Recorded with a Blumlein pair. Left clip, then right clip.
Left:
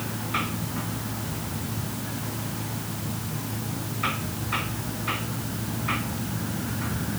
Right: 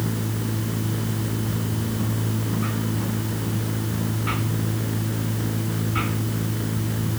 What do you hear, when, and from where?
0.0 s a machine running: 65° right